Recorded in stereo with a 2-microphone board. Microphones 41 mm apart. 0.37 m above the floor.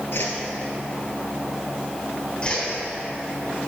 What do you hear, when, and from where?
0.1 s a whoosh: 65° left (ahead or behind), 1.4 m
2.4 s a whoosh: 25° left (ahead or behind), 2.5 m